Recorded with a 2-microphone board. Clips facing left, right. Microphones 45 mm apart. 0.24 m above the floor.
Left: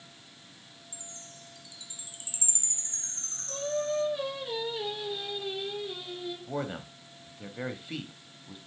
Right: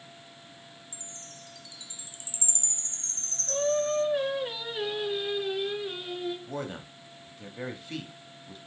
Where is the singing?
65° right (ahead or behind), 3.5 m.